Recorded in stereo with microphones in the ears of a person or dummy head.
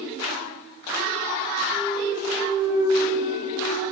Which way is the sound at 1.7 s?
15° right (ahead or behind).